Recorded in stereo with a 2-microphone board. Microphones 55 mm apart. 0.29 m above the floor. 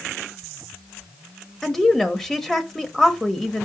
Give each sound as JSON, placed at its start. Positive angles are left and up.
{"t": 1.6, "sound": "a woman speaking", "side_deg": 10, "distance_m": 0.9}